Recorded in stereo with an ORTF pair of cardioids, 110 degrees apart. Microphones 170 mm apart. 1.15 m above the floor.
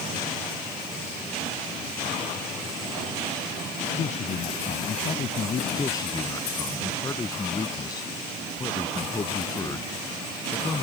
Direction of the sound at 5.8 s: 20° left.